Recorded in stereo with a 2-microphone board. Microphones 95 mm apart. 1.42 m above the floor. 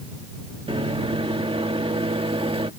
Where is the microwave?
80° right.